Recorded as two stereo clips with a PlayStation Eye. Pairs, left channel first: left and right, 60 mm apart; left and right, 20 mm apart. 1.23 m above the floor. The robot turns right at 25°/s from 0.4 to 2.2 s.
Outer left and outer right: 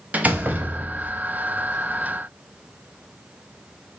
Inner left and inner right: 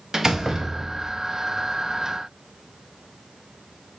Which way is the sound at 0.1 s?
25° right (ahead or behind).